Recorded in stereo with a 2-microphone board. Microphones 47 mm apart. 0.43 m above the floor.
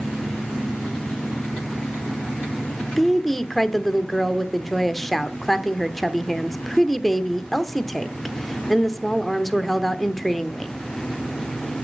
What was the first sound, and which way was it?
A woman speaking, 5° left (ahead or behind).